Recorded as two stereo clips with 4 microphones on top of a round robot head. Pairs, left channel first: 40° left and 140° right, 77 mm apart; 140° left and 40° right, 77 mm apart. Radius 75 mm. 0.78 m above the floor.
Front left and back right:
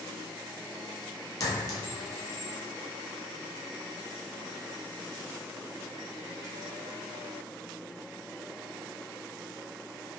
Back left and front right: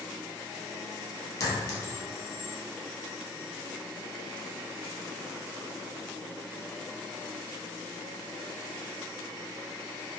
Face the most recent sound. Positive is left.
turn(degrees=90)